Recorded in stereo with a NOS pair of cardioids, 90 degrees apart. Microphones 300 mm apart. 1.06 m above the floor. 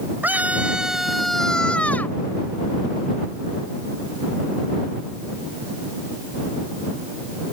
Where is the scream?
5° right; by 2.2 s 5° left.